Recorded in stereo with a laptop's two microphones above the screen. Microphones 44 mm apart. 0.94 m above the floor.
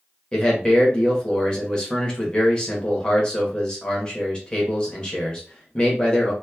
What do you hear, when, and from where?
0.3 s a man speaking: 20° left (ahead or behind), 0.9 m